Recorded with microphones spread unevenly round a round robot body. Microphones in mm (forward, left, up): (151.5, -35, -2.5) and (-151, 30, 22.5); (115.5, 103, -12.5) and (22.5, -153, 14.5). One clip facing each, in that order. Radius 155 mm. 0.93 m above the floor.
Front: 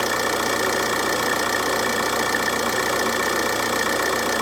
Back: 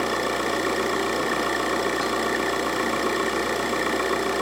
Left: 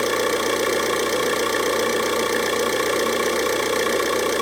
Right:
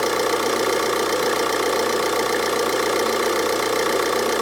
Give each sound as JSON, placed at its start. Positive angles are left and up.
{"t": 0.0, "sound": "an engine running", "azimuth_deg": -35, "distance_m": 2.0}